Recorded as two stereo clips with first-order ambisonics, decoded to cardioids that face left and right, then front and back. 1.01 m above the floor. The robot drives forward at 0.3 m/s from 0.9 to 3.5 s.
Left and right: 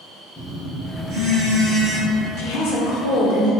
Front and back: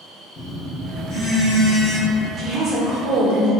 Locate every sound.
0.3 s a phone buzzing: 35° right, 0.8 m; by 2.3 s 80° right, 0.7 m
2.4 s a woman speaking: 110° left, 0.7 m; by 3.5 s 130° left, 0.9 m